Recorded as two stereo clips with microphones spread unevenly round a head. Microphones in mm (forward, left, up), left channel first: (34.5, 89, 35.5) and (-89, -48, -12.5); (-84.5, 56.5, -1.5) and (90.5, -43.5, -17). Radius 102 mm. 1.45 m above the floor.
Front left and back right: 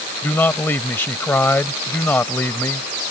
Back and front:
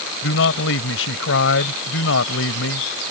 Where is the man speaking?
125° left.